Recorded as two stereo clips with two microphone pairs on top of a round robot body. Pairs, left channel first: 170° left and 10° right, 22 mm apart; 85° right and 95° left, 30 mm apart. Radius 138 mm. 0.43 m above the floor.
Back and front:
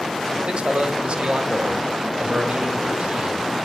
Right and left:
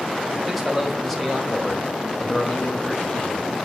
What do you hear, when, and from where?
0.5 s a man speaking: 5° left, 2 m; by 3.7 s 40° right, 2.5 m